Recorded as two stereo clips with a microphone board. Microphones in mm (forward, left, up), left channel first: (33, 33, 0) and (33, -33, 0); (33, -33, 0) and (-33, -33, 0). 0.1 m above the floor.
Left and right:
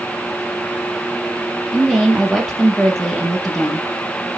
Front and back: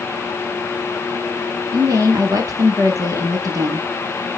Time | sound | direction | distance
1.7 | a woman speaking | 175° left | 2.5 m